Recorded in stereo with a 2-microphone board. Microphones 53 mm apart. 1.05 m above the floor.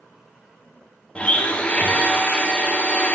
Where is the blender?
25° left (ahead or behind), 0.9 m.